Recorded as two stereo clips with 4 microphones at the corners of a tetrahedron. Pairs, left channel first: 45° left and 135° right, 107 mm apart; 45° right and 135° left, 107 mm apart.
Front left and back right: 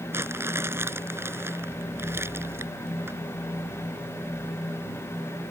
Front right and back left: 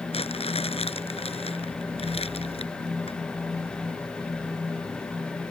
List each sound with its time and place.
0.1 s crumpling: 70° right